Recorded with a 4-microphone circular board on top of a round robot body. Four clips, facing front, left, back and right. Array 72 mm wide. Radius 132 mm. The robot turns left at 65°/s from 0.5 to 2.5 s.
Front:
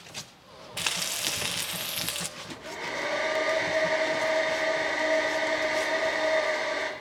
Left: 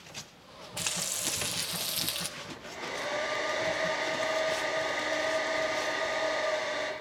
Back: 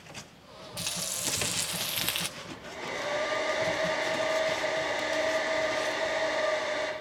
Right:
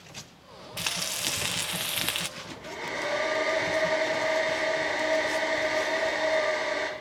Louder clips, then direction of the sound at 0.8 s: Right 4 dB, front 6 dB; 15° right.